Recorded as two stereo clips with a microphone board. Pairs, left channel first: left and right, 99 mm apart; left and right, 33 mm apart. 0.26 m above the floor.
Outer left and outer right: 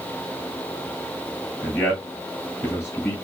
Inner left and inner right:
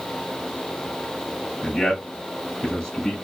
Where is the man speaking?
20° left (ahead or behind), 1.7 m.